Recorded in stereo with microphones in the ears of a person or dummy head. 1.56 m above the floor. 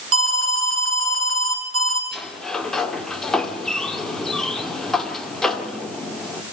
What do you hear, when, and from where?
0.1 s an alarm: 65° right (ahead or behind), 2.5 m
2.1 s a sliding door: 10° left (ahead or behind), 2.0 m